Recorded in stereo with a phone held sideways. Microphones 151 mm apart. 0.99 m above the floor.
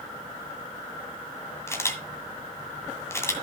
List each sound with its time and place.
1.7 s a camera shutter: 20° left (ahead or behind), 1.9 m